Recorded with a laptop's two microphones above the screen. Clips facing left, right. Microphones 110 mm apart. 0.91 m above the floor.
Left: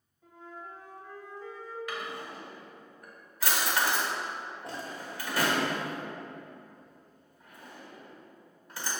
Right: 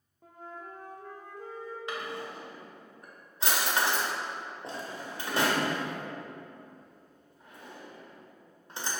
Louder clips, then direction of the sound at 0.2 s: Right 1 dB; 50° right (ahead or behind).